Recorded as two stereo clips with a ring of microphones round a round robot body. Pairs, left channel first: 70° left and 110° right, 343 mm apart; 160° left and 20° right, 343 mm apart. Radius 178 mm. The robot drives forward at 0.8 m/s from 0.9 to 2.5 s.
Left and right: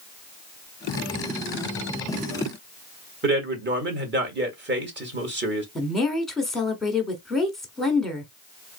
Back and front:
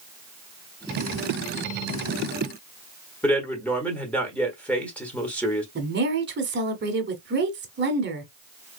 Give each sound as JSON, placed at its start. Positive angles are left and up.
{"t": 3.2, "sound": "a man speaking", "azimuth_deg": -120, "distance_m": 1.3}
{"t": 5.8, "sound": "a woman speaking", "azimuth_deg": -20, "distance_m": 1.2}